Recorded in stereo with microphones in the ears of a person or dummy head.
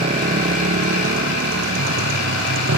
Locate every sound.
0.0 s a motorcycle: 35° right (ahead or behind); by 2.8 s 55° right (ahead or behind)